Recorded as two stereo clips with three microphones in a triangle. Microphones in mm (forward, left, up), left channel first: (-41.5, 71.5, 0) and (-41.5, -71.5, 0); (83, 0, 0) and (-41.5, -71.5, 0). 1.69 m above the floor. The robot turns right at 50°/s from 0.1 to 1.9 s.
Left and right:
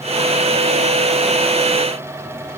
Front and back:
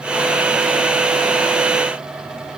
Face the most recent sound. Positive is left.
No sound to turn to.